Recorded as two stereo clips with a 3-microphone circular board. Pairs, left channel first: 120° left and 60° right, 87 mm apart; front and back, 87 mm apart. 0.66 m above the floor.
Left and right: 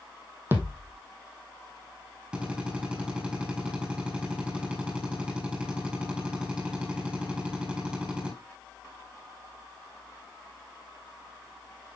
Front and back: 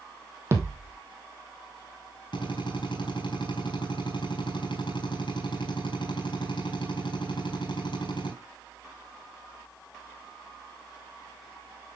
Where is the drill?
20° left, 4.5 m.